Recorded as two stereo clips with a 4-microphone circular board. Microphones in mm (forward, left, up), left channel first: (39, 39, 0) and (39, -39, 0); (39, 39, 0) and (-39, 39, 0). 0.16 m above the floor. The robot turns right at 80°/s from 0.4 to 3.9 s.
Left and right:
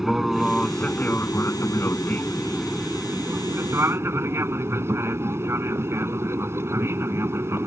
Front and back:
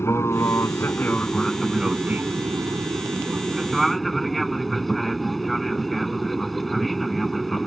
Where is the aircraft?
10° right; by 7.7 s 90° right.